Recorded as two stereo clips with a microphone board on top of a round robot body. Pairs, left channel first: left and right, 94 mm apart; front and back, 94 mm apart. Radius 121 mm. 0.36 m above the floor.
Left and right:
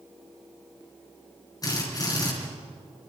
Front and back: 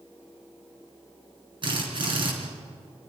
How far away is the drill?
About 4.5 m.